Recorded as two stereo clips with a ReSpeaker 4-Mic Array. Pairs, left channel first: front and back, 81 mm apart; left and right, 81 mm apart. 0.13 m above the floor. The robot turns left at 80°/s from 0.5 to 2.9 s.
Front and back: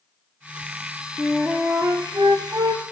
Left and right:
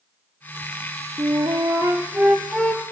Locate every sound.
1.2 s a flute: 80° right, 0.9 m; by 2.8 s 150° left, 0.9 m